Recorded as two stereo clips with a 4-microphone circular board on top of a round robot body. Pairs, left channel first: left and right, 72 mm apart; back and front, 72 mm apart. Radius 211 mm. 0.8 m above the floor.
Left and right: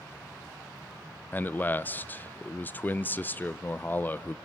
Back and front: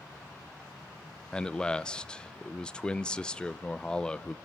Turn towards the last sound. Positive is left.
turn(degrees=115)